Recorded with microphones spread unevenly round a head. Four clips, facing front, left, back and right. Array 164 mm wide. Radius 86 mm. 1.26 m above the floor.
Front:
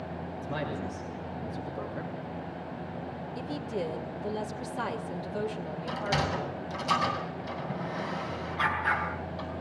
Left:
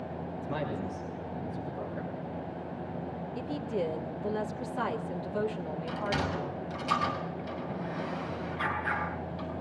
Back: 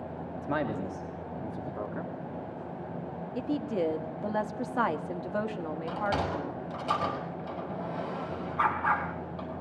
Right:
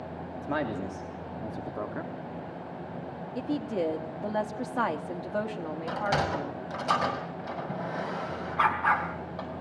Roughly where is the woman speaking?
Behind right.